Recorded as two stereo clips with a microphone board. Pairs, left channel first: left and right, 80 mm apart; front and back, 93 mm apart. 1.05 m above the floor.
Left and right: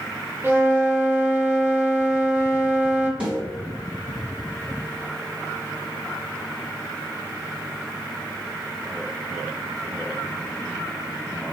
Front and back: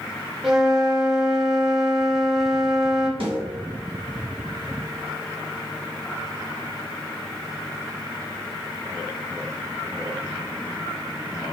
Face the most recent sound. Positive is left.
turn(degrees=-165)